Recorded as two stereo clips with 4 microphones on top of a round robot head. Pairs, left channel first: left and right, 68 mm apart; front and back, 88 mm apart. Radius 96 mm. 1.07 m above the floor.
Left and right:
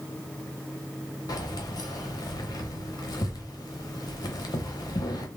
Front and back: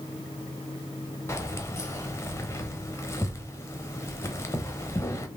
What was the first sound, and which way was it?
Keys jangling, 60° left.